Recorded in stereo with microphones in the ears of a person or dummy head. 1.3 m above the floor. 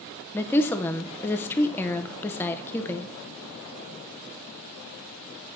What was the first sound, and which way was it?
A woman speaking, 15° left (ahead or behind).